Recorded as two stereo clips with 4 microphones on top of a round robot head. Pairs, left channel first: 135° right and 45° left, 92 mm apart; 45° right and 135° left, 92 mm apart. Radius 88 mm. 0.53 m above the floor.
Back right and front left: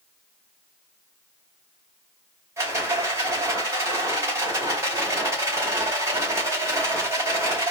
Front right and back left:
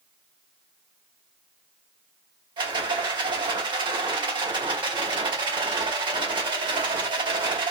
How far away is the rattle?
About 2 m.